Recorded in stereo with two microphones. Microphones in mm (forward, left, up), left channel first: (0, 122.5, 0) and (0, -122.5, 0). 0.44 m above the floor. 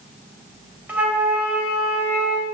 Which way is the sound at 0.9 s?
5° right (ahead or behind).